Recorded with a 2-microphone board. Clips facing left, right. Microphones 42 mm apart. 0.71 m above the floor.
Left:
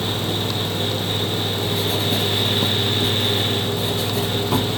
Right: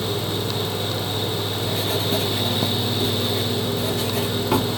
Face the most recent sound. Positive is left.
turn(degrees=-50)  # may be behind; listen again after turning